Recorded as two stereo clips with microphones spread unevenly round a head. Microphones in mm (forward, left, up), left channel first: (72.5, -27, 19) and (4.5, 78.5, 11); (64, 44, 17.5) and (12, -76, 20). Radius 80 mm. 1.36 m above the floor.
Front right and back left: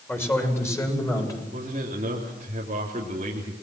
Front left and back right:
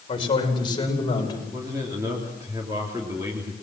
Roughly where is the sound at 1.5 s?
Behind.